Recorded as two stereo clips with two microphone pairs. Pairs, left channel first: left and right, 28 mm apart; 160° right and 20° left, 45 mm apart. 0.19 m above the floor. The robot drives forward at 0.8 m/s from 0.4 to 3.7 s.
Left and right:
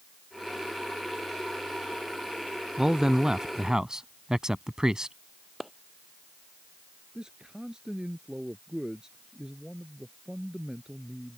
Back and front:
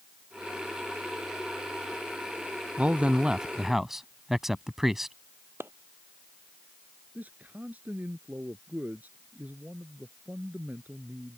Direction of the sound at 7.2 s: 25° right.